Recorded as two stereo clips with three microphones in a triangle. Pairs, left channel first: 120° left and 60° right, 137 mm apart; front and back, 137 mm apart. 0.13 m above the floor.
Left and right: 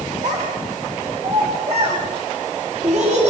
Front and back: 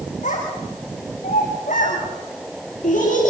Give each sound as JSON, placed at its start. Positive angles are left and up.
{"t": 0.2, "sound": "a child speaking", "azimuth_deg": -25, "distance_m": 9.0}